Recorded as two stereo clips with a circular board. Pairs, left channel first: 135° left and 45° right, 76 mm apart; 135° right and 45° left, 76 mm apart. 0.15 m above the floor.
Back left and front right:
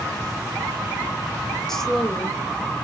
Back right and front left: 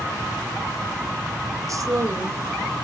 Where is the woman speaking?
55° left, 1.8 m; by 2.8 s 45° left, 2.5 m.